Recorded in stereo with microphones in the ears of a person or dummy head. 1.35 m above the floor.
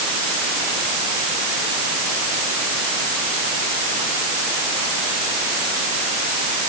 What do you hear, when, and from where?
Only background noise.